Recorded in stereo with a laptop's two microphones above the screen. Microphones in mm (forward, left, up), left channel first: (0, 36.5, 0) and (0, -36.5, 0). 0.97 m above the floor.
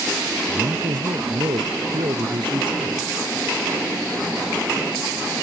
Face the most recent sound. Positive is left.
turn(degrees=-80)